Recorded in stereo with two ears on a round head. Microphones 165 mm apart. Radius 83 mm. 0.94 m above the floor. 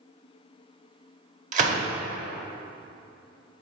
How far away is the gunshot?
About 0.8 m.